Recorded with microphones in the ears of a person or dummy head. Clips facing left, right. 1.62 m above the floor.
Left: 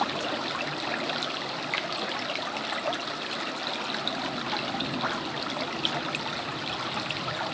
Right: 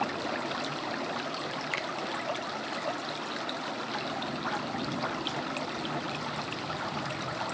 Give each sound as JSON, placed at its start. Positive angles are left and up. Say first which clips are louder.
{"t": 1.7, "sound": "a finger snap", "louder": "left 2 dB", "side_deg": -25, "distance_m": 0.8}